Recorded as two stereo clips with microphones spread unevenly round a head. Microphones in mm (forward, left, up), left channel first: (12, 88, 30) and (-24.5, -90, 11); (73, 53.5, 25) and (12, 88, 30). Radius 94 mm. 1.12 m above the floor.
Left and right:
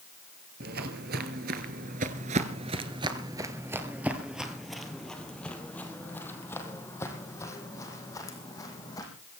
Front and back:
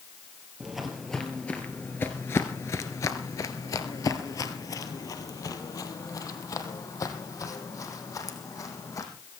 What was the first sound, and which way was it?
Footsteps, 130° right.